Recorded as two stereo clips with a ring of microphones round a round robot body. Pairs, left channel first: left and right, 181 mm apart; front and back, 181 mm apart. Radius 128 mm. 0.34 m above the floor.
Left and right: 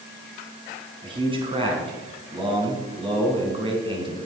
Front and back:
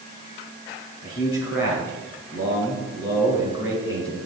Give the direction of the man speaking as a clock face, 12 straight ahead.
1 o'clock.